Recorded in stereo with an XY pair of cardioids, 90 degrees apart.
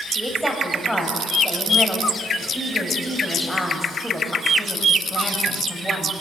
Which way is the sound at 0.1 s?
5° right.